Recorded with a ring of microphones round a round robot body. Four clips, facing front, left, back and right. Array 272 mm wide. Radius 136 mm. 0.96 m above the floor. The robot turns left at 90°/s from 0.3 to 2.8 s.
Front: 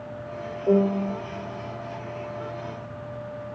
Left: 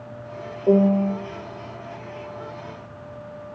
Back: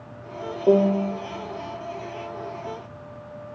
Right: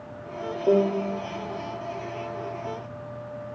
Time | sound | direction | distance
0.7 | a piano | 165° left | 0.7 m